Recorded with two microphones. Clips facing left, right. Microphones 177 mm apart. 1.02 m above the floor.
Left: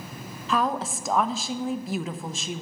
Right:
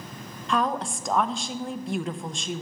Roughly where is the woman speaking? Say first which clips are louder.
Even; centre.